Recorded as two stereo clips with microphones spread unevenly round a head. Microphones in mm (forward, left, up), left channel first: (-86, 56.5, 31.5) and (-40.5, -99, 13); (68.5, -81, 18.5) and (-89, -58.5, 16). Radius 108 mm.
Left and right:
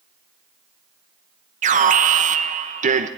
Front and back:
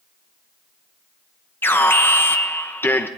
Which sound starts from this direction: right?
An alarm, at 1.6 s.